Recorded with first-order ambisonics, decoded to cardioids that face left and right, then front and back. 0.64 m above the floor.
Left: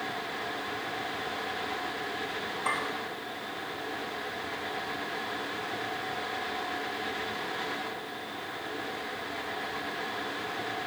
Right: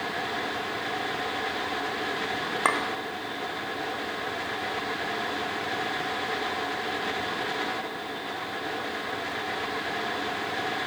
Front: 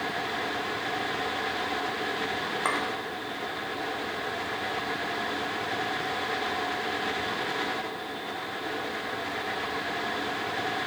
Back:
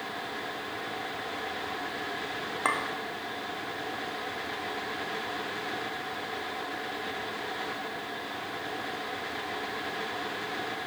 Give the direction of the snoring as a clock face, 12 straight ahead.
I don't hear snoring.